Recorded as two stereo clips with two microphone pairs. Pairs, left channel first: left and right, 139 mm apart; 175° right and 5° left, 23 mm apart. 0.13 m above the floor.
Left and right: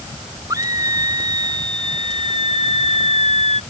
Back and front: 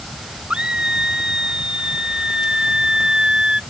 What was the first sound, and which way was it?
A scream, 30° right.